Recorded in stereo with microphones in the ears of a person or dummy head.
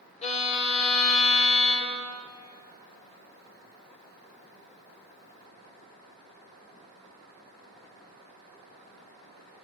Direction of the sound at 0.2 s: 40° left (ahead or behind).